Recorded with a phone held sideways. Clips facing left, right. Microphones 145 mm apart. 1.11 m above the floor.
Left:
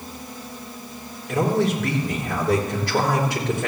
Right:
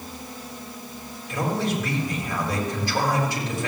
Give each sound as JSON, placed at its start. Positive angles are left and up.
{"t": 1.3, "sound": "a man speaking", "side_deg": 65, "distance_m": 4.0}